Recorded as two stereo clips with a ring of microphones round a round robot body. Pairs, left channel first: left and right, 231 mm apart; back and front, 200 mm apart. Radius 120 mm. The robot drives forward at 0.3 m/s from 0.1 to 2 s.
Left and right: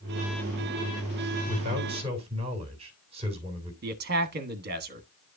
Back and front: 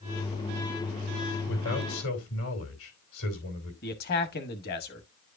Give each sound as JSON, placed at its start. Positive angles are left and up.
{"t": 1.5, "sound": "a man speaking", "azimuth_deg": -155, "distance_m": 2.5}
{"t": 3.8, "sound": "a man speaking", "azimuth_deg": -135, "distance_m": 1.2}